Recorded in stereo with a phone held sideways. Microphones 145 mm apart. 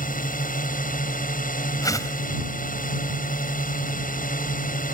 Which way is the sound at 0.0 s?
65° left (ahead or behind).